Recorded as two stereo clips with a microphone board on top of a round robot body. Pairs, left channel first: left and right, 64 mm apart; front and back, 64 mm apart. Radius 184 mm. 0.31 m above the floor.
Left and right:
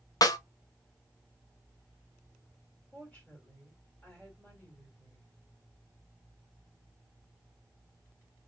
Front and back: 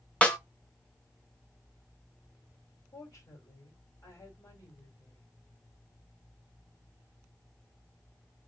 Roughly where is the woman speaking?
Ahead left.